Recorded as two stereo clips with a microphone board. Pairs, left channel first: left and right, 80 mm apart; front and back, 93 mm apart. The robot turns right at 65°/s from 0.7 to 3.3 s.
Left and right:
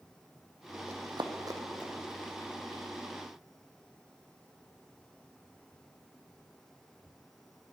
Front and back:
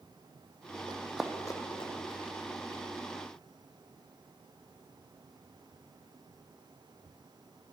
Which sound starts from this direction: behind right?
Running footsteps, at 0.9 s.